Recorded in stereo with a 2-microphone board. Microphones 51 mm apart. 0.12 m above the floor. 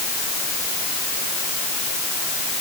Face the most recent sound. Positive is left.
No sound to turn to.